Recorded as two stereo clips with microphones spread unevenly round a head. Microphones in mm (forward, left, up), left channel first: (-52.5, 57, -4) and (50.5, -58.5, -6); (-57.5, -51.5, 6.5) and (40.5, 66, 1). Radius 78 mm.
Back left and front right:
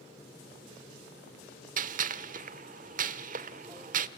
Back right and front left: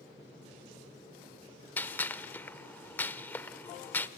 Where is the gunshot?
55° right, 1.1 m.